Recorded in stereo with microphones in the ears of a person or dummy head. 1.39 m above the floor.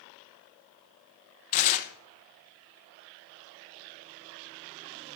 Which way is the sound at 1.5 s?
40° left (ahead or behind).